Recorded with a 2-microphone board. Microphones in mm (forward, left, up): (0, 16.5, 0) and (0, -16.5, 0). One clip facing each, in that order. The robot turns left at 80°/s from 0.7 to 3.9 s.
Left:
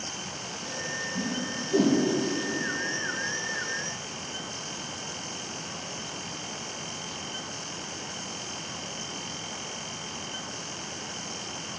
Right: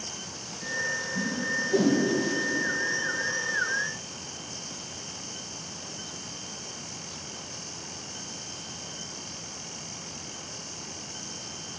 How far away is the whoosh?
About 4.5 m.